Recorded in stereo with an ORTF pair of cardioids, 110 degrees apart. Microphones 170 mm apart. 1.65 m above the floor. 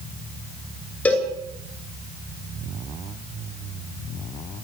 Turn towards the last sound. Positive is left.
turn(degrees=5)